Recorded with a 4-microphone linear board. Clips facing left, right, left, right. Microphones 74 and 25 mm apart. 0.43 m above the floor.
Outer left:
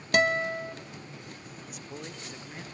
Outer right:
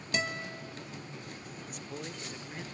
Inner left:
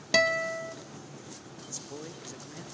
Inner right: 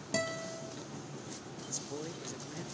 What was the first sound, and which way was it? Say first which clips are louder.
A guitar: outer left 11 dB, inner left 11 dB; 60° left (ahead or behind).